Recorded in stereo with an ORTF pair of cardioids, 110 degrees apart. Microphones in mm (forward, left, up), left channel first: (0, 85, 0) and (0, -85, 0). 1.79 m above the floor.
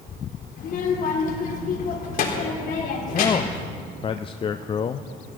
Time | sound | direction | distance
0.6 | a child speaking | 60° left | 4 m
3.1 | a man speaking | 30° left | 0.5 m